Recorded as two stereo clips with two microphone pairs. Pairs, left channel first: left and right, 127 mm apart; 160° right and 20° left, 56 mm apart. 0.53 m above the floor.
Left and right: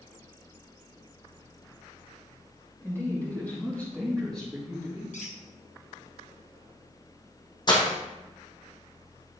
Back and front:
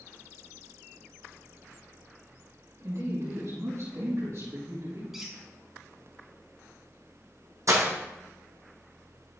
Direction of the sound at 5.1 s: 100° left.